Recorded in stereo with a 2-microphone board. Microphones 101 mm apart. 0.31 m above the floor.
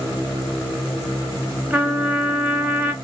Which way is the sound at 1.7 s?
20° right (ahead or behind).